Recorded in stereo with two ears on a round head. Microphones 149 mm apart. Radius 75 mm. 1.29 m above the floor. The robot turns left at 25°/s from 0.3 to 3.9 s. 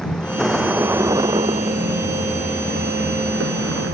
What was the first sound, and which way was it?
A vehicle, 5° left.